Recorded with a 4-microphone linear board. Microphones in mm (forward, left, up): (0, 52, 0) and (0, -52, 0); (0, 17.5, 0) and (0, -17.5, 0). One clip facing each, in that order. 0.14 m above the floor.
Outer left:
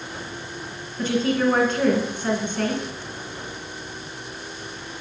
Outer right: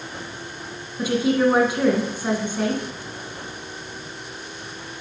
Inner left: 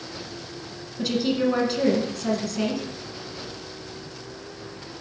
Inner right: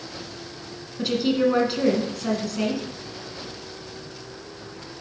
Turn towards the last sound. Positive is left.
turn(degrees=-10)  # may be behind; listen again after turning